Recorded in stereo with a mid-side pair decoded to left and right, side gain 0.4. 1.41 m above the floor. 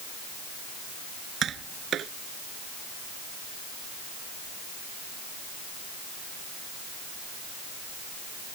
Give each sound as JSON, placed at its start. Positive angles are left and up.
{"t": 1.4, "sound": "tapping", "azimuth_deg": -65}